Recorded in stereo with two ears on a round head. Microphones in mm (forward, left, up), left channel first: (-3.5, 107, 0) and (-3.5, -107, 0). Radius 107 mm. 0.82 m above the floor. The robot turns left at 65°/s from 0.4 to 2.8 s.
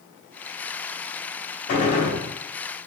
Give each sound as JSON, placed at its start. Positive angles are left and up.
{"t": 1.7, "sound": "a gunshot", "azimuth_deg": 45, "distance_m": 1.4}